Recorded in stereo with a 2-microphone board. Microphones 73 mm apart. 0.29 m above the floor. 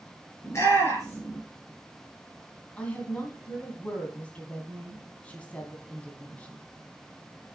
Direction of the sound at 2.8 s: 20° left (ahead or behind).